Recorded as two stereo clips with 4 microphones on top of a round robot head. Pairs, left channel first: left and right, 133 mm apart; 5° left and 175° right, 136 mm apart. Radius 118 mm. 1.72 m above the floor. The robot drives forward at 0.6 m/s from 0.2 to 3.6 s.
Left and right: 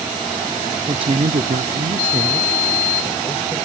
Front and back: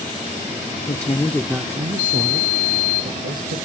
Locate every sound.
0.9 s a woman speaking: 40° right, 0.6 m; by 3.6 s 165° right, 1.3 m